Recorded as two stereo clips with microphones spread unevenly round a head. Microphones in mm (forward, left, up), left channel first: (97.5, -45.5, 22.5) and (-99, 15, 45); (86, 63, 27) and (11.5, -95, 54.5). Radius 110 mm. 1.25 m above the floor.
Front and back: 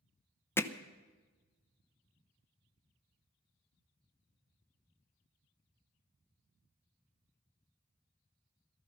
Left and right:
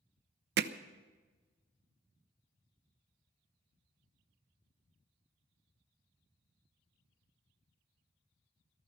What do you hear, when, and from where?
0.6 s hammering: 95° right, 0.8 m